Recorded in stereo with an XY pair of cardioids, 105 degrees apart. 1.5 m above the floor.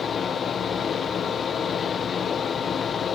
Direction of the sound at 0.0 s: 45° left.